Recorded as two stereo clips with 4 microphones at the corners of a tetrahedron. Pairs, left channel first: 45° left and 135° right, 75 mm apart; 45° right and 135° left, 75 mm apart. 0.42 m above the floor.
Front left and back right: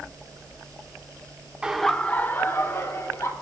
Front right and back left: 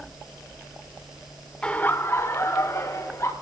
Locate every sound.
1.6 s laughter: 90° right, 0.8 m; by 3.3 s straight ahead, 2.5 m